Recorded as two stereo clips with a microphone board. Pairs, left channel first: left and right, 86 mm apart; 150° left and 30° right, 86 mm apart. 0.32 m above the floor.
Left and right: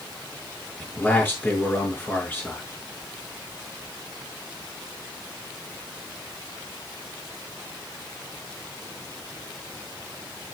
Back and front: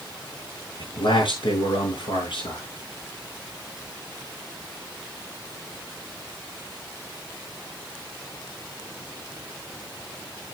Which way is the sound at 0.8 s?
160° left.